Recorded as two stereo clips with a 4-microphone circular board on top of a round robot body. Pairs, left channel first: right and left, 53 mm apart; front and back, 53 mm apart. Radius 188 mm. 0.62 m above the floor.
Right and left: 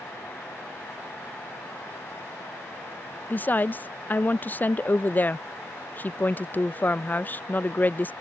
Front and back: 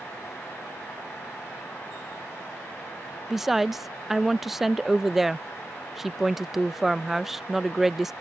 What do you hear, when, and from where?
3.3 s a woman speaking: 100° right